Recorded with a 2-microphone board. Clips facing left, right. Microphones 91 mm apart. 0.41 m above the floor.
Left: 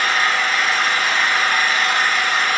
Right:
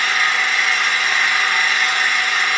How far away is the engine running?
About 0.9 m.